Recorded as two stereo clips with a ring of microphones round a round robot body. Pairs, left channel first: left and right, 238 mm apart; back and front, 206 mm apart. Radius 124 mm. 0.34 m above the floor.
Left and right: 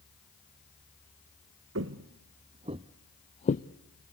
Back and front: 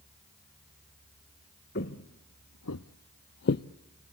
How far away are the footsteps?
About 1.2 m.